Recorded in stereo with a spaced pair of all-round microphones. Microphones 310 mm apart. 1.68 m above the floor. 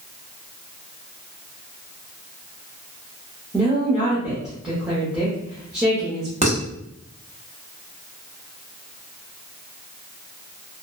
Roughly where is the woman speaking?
Centre.